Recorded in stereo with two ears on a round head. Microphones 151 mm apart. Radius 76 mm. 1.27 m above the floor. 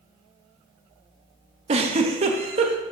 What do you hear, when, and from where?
1.7 s a giggle: 35° right (ahead or behind), 0.6 m